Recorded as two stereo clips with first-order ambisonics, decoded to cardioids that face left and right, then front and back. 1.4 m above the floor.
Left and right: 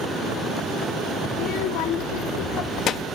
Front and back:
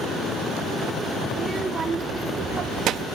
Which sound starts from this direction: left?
A child speaking, at 1.3 s.